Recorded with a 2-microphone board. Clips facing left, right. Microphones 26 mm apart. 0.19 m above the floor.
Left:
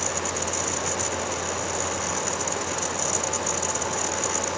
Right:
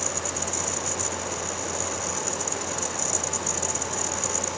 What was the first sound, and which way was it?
Only background noise.